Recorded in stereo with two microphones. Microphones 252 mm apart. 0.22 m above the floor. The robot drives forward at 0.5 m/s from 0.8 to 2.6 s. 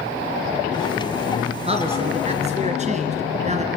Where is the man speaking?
25° right (ahead or behind), 2.5 m; by 3.7 s 30° right (ahead or behind), 2.5 m.